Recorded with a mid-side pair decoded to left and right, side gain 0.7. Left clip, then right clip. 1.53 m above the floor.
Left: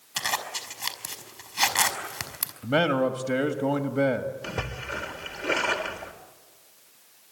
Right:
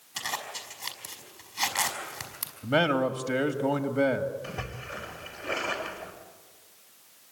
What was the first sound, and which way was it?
A zipper, 30° left.